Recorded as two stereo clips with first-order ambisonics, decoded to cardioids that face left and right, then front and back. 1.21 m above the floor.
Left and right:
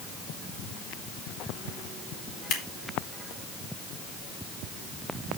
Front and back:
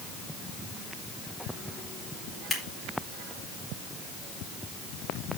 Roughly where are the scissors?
Left.